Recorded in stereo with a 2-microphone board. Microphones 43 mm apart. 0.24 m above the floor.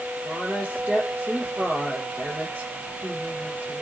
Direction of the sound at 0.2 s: 30° right (ahead or behind).